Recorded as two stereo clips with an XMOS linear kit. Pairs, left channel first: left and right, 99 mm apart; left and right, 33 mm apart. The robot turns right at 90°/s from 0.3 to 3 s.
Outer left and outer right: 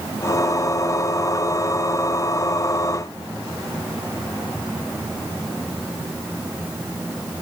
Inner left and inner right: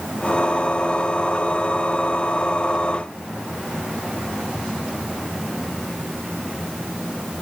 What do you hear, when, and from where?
Only background noise.